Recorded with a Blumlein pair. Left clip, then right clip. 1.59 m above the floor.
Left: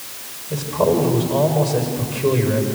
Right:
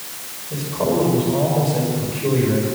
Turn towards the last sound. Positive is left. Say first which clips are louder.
# left 3 dB
turn(degrees=15)